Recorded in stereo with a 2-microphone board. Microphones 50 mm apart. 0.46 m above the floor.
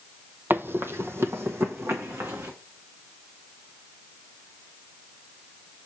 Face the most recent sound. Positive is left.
turn(degrees=-65)  # may be behind; listen again after turning